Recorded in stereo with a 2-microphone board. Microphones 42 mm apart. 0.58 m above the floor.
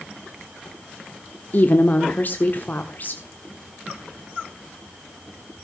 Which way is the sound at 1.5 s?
45° left (ahead or behind).